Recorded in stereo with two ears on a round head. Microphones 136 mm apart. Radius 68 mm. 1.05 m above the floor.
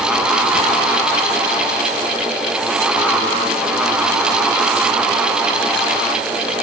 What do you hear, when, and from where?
Only background noise.